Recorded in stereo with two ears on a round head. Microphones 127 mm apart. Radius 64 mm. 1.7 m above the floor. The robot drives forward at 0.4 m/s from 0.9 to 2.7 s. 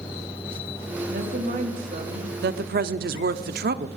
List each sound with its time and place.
1.1 s a woman speaking: 75° right (ahead or behind), 3.5 m; by 2.3 s 65° right (ahead or behind), 3.5 m
2.4 s a woman speaking: 80° right, 0.8 m; by 3.9 s 75° right (ahead or behind), 0.8 m